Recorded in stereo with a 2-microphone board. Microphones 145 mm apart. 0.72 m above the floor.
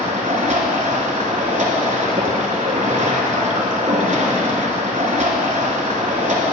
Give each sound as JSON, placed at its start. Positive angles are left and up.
{"t": 0.0, "sound": "running water", "side_deg": -55, "distance_m": 1.4}